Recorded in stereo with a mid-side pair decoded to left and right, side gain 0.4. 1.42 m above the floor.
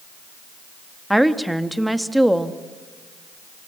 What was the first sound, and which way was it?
A woman speaking, 5° right.